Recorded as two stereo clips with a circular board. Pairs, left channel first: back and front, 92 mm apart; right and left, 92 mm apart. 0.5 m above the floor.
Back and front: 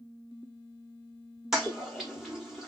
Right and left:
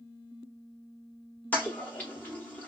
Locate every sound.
1.5 s a toilet flushing: 80° right, 0.9 m